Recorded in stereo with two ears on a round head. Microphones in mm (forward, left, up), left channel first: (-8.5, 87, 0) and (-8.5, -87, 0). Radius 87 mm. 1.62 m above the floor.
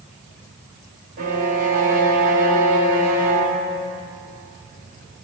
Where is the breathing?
No breathing in this recording.